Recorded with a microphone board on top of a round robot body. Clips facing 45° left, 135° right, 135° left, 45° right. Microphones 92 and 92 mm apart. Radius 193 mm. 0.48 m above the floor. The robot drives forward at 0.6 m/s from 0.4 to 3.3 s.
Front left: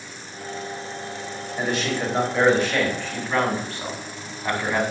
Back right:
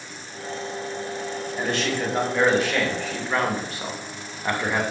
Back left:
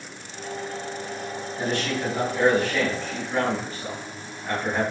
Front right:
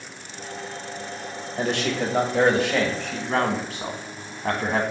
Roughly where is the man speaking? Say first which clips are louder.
Front left 1 dB, front right 2 dB; ahead right.